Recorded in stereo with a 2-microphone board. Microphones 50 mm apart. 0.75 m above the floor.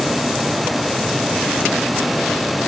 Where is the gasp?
No gasp in this recording.